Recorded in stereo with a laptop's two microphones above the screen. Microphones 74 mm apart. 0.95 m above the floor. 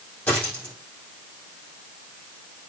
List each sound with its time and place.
0.3 s a dropped coin: 20° left (ahead or behind), 4 m